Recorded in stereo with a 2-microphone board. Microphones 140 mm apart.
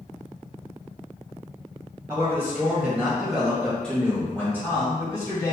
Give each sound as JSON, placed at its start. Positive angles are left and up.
{"t": 2.1, "sound": "a man speaking", "side_deg": -20, "distance_m": 1.5}